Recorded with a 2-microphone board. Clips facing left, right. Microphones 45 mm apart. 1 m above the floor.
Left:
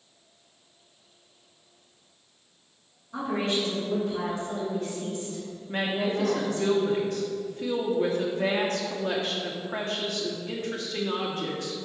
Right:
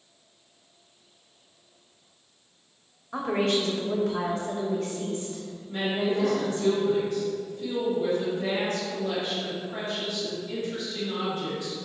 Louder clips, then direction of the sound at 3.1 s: Right 3 dB; 80° right.